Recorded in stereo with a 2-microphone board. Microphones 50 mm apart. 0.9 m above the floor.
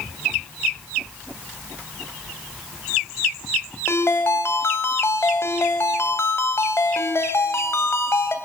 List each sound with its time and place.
3.9 s a ringtone: 60° left (ahead or behind), 3 m